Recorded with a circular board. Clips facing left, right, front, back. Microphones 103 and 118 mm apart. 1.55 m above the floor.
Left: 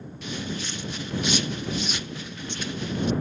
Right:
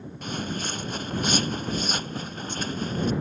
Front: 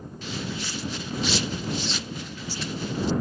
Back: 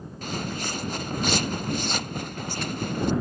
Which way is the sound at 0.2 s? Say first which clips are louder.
Right 1 dB, back 2 dB; 135° right.